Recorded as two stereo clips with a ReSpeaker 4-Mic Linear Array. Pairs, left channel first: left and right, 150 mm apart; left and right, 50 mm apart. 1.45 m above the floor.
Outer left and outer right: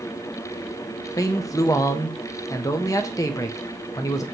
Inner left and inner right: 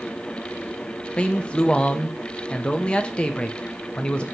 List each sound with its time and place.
1.2 s a man speaking: 20° left (ahead or behind), 0.6 m